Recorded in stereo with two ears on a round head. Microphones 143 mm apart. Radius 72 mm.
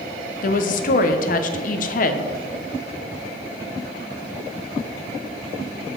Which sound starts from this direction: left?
A woman speaking, at 0.4 s.